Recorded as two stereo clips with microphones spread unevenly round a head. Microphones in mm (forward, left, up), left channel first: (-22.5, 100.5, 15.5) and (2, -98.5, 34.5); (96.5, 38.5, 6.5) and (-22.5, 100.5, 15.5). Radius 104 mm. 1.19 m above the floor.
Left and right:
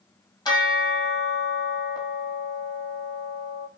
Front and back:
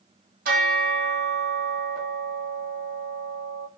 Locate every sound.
0.5 s a bell: 170° left, 1.3 m